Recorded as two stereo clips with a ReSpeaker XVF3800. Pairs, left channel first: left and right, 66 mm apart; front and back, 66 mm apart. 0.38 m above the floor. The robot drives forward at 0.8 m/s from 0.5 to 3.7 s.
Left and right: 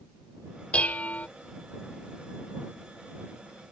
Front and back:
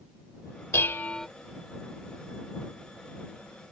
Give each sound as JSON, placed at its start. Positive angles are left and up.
{"t": 0.7, "sound": "dishes clattering", "azimuth_deg": 25}